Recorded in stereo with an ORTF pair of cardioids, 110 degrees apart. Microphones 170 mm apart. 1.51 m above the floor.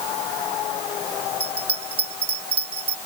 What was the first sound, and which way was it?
A bell, 35° right.